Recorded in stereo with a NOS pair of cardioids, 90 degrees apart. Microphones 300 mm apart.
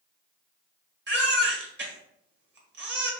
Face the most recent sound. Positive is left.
turn(degrees=-40)